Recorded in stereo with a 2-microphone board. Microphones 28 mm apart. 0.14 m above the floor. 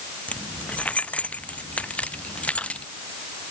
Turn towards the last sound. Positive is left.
turn(degrees=55)  # may be behind; listen again after turning